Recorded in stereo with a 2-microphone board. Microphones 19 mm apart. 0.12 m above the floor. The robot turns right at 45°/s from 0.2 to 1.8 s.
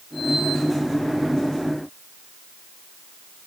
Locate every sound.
Only background noise.